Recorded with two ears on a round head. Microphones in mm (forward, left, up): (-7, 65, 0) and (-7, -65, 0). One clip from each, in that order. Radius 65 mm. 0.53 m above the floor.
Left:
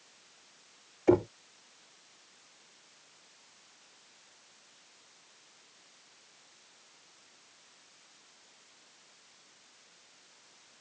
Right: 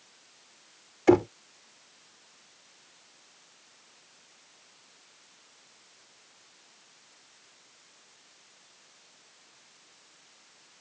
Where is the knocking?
45° right (ahead or behind).